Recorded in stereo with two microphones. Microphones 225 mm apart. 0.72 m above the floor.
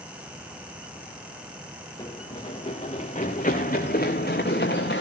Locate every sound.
2.0 s running footsteps: 20° left (ahead or behind), 4 m; by 5.0 s 50° left (ahead or behind), 4.5 m